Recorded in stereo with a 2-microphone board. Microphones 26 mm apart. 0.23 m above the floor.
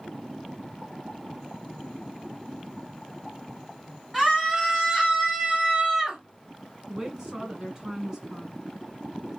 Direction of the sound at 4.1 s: 5° right (ahead or behind).